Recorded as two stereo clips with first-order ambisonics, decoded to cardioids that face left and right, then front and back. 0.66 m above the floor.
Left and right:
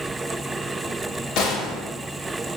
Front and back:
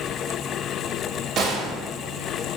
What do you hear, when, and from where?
1.4 s a gunshot: 120° left, 1.1 m